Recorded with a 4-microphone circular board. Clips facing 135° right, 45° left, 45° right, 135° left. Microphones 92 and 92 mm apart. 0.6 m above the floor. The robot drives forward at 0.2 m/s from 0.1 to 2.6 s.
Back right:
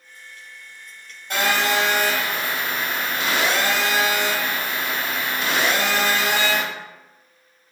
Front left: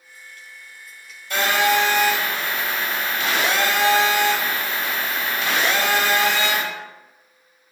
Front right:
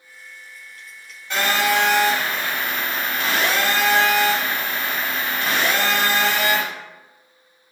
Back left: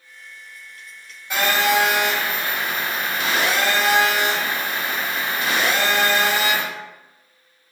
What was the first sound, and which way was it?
A phone buzzing, 145° right.